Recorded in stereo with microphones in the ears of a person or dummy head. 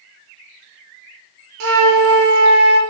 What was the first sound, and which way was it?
A flute, 75° right (ahead or behind).